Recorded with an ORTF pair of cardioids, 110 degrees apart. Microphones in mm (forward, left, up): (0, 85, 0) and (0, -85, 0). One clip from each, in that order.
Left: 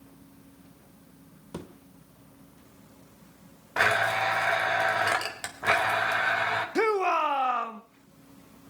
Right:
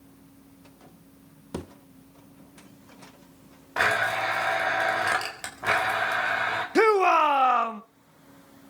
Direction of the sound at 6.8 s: 30° right.